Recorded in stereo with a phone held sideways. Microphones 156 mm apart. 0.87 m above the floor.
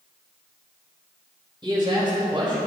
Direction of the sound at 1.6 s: 35° right (ahead or behind).